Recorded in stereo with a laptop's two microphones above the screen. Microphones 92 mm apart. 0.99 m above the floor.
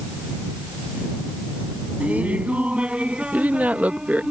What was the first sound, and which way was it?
Laughter, 15° right (ahead or behind).